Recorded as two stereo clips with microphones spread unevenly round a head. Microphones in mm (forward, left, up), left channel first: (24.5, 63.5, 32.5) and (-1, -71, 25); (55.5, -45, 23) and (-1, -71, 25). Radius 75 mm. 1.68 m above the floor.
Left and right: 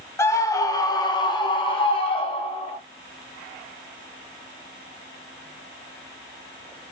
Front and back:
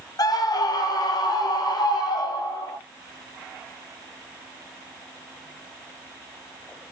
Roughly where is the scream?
Ahead.